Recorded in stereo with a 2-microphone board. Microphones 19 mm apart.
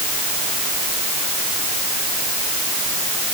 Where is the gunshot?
No gunshot in this recording.